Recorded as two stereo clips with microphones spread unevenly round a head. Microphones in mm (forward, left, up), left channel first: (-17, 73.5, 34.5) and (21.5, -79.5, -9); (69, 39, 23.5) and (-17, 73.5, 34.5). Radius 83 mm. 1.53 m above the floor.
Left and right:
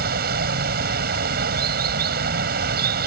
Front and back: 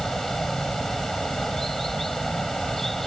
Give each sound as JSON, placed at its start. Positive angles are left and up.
{"t": 0.0, "sound": "running water", "azimuth_deg": -110}